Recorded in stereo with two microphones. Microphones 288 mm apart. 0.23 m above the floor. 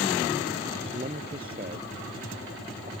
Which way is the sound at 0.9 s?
30° right (ahead or behind).